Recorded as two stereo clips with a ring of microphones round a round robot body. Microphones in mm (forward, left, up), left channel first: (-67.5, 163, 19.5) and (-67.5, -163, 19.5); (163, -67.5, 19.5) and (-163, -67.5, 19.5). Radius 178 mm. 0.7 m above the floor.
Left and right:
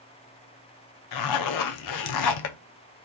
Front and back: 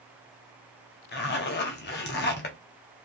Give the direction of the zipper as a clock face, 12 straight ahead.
10 o'clock.